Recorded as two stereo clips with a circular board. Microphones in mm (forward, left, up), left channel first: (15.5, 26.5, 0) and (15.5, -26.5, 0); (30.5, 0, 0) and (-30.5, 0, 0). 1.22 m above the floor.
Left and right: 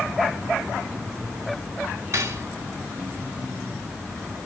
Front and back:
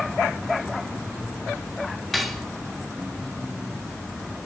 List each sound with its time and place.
2.1 s cutlery clinking: 90° right, 1.8 m